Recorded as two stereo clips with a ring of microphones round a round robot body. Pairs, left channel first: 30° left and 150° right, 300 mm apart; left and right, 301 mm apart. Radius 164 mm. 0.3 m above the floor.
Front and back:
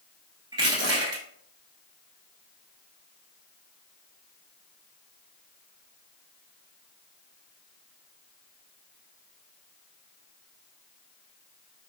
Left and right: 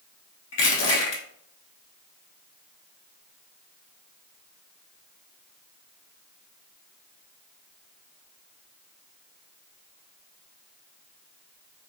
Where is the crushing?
130° left, 0.8 m.